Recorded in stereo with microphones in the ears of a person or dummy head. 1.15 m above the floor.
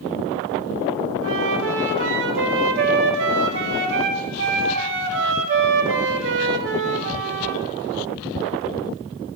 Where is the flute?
75° right (ahead or behind), 1.6 m.